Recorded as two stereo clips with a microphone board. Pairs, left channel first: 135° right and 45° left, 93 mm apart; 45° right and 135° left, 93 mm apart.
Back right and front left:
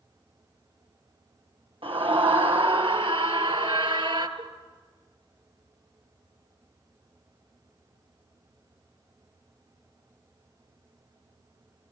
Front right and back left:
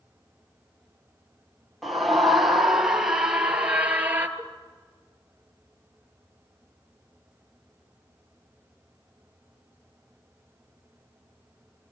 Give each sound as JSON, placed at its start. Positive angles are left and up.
{"t": 1.8, "sound": "a scream", "azimuth_deg": 45, "distance_m": 3.5}
{"t": 4.4, "sound": "a cowbell", "azimuth_deg": 35, "distance_m": 5.0}